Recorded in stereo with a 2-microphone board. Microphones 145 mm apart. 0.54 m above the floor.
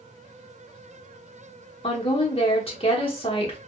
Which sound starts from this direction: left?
A woman speaking, at 1.8 s.